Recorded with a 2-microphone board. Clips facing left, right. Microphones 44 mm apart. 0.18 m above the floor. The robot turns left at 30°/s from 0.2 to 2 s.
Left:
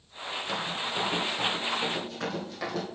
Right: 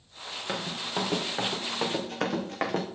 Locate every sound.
0.5 s running footsteps: 25° right (ahead or behind), 3 m; by 2.9 s 45° right (ahead or behind), 3 m